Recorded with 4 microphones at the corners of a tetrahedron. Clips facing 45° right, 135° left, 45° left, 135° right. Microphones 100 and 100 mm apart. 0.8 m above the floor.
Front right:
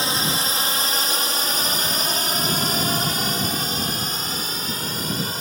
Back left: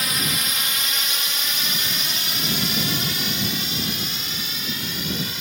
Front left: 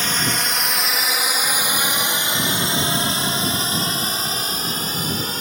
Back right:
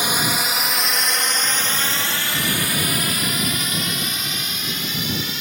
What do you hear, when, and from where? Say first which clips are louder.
0.0 s a drone: front right 3 dB, back right 1 dB; 70° right; by 5.4 s straight ahead